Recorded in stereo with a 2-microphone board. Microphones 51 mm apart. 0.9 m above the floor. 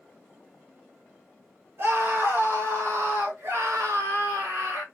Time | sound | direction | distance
1.8 | a scream | 50° right (ahead or behind) | 3 m